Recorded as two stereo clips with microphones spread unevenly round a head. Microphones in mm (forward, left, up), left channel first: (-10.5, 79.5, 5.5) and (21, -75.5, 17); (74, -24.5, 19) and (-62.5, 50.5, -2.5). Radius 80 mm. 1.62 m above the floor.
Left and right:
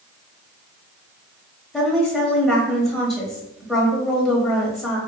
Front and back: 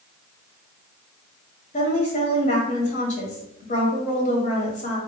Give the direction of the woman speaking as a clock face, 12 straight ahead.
12 o'clock.